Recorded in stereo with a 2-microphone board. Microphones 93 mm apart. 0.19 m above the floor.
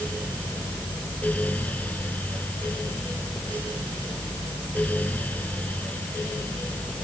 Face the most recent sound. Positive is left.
No sound to turn to.